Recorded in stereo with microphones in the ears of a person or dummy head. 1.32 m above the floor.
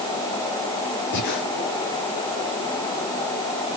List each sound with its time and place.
1.1 s breathing: 55° left (ahead or behind), 1.9 m